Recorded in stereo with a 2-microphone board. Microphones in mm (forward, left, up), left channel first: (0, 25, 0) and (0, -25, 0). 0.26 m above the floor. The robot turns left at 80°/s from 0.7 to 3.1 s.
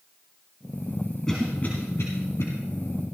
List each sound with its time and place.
1.3 s a cough: 10° left (ahead or behind), 2.0 m; by 2.5 s 60° left (ahead or behind), 2.0 m